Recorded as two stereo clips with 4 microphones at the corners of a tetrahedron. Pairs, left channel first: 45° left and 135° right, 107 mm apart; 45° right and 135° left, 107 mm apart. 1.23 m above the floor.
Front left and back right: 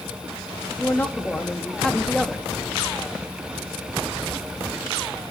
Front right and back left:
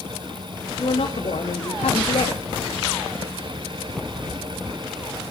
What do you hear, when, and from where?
0.8 s a man speaking: 25° right, 2.5 m; by 2.5 s 50° right, 2.5 m